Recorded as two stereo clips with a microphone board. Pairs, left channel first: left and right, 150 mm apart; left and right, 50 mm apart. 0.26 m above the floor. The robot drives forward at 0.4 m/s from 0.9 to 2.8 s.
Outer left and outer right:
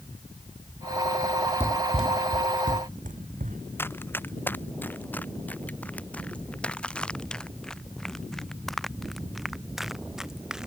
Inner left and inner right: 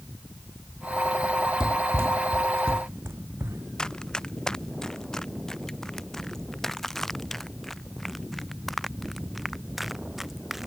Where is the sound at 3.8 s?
15° left (ahead or behind); by 10.7 s 5° right (ahead or behind).